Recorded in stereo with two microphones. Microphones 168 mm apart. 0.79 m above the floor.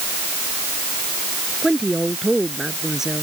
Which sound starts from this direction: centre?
A woman speaking, at 1.6 s.